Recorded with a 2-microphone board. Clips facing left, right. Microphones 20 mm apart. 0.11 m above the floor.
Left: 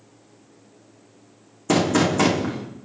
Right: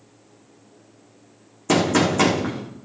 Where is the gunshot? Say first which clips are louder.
Right 1 dB; 10° right (ahead or behind), 3.5 m.